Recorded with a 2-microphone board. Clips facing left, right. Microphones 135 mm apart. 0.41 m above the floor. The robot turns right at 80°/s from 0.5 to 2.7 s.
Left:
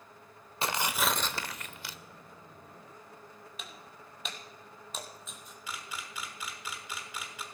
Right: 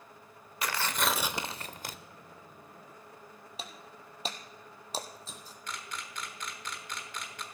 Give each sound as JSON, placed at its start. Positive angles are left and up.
{"t": 0.6, "sound": "tearing paper", "azimuth_deg": 145, "distance_m": 0.5}
{"t": 3.6, "sound": "breaking glass", "side_deg": -35, "distance_m": 1.1}
{"t": 5.7, "sound": "a camera shutter", "side_deg": 5, "distance_m": 1.2}